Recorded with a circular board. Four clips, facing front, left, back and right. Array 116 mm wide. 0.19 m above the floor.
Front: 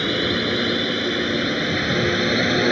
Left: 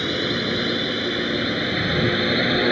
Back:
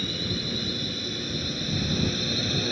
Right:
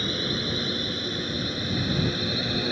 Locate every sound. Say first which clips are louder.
0.0 s a drone: left 6 dB, front 11 dB; 25° left; by 2.7 s 40° left